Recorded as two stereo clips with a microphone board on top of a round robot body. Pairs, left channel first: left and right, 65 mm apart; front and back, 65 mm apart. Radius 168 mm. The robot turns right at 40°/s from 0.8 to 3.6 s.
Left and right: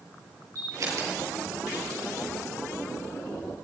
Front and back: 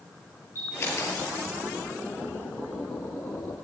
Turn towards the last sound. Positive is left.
turn(degrees=60)